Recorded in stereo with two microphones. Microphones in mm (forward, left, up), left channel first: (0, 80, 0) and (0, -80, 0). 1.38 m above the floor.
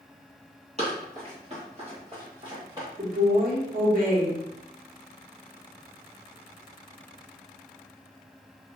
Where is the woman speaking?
65° right (ahead or behind), 1.0 m.